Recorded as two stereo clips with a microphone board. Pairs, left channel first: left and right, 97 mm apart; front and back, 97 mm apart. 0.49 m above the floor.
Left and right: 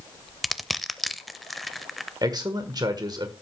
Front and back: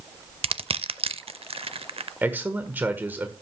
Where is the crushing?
Straight behind, 0.5 m.